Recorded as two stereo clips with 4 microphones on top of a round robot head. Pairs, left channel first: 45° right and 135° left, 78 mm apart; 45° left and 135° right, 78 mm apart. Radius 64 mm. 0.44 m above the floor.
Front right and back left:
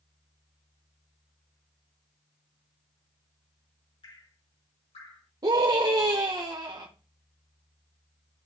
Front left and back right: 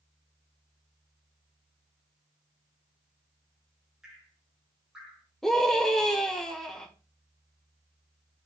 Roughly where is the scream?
Behind left.